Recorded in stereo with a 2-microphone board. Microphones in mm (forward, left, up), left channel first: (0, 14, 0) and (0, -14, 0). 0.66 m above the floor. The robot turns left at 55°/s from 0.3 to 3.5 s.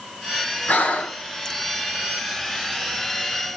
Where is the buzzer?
No buzzer in this recording.